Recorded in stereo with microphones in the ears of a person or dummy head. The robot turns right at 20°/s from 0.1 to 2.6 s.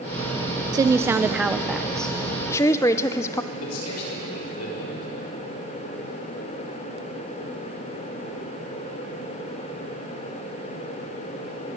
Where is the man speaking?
85° left, 6 m.